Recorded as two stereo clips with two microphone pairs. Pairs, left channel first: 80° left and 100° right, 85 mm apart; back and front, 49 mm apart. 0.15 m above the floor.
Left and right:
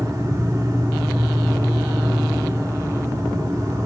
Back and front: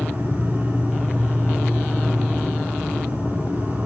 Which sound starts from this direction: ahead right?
An insect, at 0.0 s.